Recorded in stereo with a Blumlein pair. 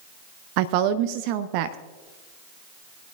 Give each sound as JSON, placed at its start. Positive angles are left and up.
{"t": 0.6, "sound": "a woman speaking", "azimuth_deg": -45, "distance_m": 0.6}